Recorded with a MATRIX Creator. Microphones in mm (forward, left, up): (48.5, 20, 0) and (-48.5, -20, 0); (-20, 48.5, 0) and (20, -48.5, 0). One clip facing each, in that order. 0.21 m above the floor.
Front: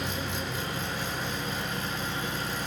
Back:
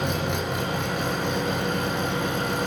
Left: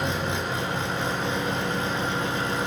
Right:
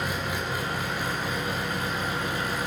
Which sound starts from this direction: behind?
An engine running, at 0.0 s.